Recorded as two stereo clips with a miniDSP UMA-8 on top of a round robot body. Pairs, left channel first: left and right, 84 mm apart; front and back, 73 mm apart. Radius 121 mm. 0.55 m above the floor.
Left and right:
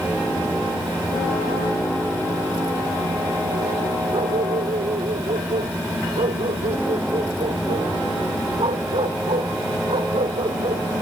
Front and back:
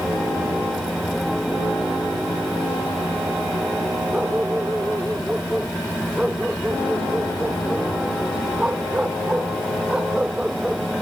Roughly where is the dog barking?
Right.